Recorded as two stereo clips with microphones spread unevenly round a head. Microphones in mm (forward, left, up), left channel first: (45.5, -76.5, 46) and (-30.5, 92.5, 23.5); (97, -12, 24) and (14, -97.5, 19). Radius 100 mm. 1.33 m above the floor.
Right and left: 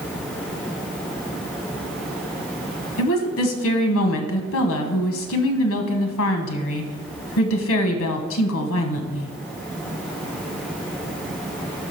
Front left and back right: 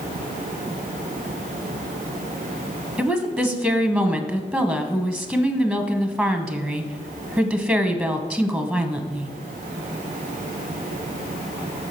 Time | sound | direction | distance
3.0 | a woman speaking | 50° right | 1.2 m